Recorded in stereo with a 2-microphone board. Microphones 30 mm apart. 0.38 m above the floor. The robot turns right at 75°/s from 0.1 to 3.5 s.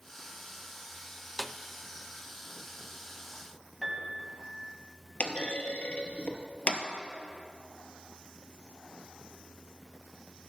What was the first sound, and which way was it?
A snare drum, centre (ahead or behind).